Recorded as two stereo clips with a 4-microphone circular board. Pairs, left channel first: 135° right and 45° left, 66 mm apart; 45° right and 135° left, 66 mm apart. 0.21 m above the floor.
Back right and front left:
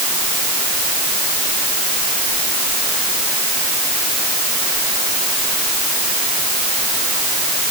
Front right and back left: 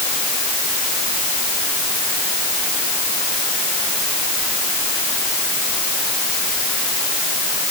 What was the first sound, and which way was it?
Only background noise.